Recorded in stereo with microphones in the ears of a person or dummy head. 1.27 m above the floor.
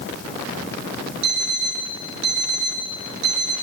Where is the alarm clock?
65° right (ahead or behind), 3 m.